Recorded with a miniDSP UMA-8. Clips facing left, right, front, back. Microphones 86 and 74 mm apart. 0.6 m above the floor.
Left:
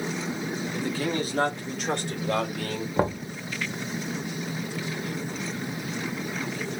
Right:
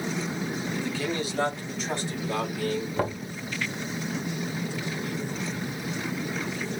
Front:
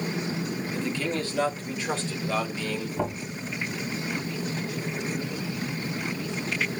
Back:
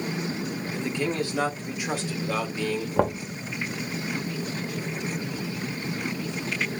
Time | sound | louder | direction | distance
0.7 | a man speaking | left 3 dB, back 3 dB | 125° left | 1.4 m
3.0 | knocking | left 3 dB, back 9 dB | 155° left | 1.2 m